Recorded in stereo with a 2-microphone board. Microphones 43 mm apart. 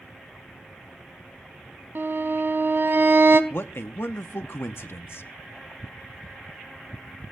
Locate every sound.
1.9 s a violin: 60° right (ahead or behind), 1.0 m
3.5 s a man speaking: 60° left (ahead or behind), 0.8 m